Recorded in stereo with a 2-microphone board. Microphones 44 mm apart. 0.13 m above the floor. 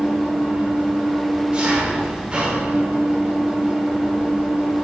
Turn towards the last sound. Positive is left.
turn(degrees=-15)  # may be behind; listen again after turning